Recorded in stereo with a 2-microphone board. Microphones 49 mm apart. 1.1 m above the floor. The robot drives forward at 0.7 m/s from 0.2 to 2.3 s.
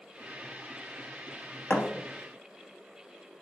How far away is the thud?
About 0.5 m.